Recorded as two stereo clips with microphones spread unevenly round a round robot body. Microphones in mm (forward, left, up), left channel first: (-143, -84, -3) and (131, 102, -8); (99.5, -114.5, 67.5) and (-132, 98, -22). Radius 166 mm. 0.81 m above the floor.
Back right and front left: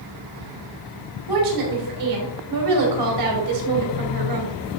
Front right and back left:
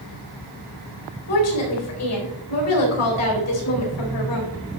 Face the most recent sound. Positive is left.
turn(degrees=5)